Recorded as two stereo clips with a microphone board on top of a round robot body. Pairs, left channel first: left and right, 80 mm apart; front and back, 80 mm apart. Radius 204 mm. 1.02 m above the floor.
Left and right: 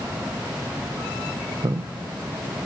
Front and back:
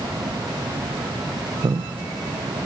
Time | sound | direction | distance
1.6 | a man speaking | 135° right | 0.6 m